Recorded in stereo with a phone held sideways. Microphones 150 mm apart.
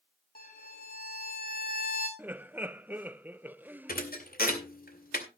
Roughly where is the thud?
Left.